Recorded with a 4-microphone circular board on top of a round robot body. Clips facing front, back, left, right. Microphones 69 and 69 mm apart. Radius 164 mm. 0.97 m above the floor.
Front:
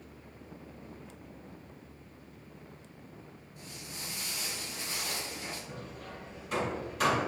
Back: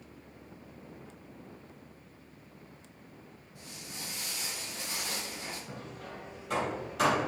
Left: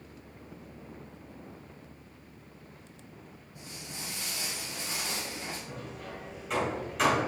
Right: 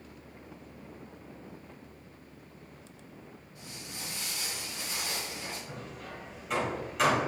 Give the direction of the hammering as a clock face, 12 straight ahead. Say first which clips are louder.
Even, left 1 dB; 6 o'clock.